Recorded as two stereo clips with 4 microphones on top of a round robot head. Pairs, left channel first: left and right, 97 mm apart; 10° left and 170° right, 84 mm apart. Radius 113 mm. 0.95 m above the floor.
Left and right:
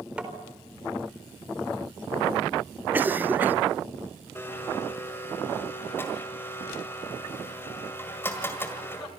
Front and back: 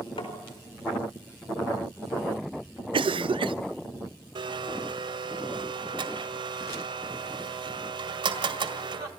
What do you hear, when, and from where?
0.2 s tapping: 10° right, 4.5 m
2.9 s a cough: 160° right, 0.8 m
4.3 s a blender: 160° left, 1.8 m